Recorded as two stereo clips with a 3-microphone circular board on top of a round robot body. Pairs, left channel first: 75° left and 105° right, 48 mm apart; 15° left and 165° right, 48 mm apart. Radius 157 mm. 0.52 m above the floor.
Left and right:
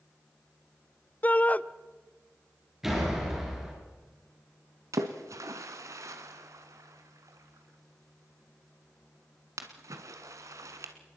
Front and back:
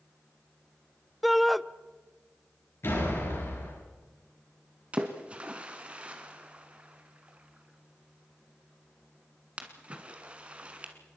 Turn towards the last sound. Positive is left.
turn(degrees=-95)